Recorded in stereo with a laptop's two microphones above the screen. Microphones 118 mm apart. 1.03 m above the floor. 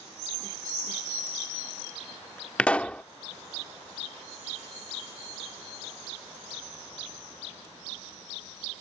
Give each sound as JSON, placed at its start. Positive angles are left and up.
{"t": 2.6, "sound": "a pop", "side_deg": 10}